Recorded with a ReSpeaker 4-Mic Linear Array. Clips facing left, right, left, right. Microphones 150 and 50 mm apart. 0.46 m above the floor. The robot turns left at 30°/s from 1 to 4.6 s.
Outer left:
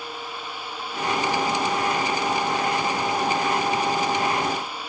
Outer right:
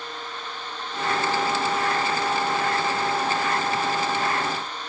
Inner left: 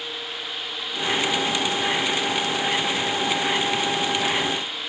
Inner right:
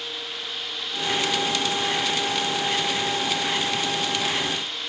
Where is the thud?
I don't hear a thud.